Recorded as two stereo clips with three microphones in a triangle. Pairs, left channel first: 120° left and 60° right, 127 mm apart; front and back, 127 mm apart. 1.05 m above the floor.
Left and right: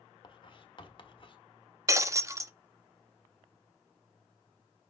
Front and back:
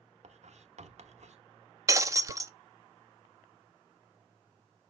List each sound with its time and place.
0.2 s writing: 165° left, 1.0 m
1.9 s breaking glass: 120° right, 0.6 m